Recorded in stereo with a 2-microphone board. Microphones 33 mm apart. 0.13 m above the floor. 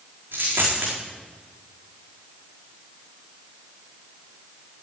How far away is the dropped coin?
About 4 m.